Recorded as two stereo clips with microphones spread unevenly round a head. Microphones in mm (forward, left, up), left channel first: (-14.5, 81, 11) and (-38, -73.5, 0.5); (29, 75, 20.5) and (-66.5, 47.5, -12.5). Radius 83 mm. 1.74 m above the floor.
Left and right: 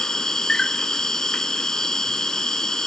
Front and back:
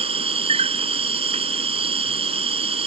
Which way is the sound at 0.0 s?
165° left.